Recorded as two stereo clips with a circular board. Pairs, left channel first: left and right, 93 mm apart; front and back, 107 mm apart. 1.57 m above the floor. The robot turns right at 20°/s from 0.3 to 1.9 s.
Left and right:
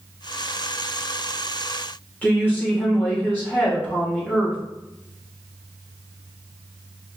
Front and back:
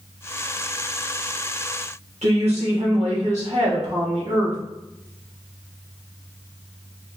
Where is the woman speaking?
160° left, 1.9 m.